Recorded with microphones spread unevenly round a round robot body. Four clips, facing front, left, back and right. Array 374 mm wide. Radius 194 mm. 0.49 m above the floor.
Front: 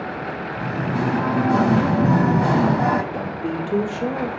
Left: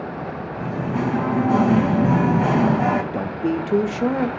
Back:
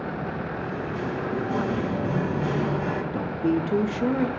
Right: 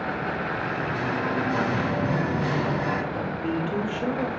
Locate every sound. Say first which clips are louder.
0.6 s singing: left 3 dB, front 6 dB; 35° left, 0.8 m
3.1 s a man speaking: left 5 dB, back 1 dB; 85° left, 0.8 m